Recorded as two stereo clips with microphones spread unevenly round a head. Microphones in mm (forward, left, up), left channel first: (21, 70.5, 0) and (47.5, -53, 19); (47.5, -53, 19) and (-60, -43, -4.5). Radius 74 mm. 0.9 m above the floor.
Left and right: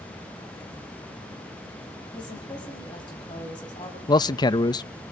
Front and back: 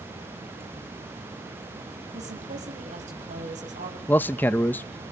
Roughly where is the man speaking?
Left.